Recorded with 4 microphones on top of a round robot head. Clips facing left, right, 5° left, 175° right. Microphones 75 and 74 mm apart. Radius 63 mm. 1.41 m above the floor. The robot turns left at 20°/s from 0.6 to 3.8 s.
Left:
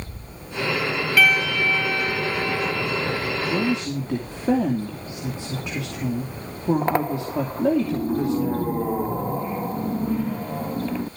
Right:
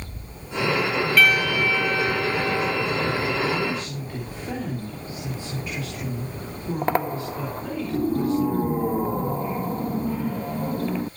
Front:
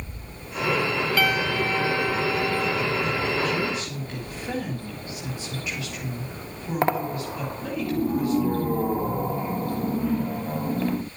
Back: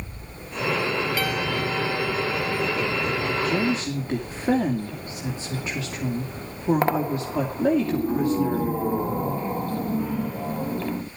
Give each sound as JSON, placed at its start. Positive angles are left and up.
{"t": 1.2, "sound": "a piano", "azimuth_deg": 0, "distance_m": 1.1}
{"t": 3.4, "sound": "a woman speaking", "azimuth_deg": 135, "distance_m": 2.5}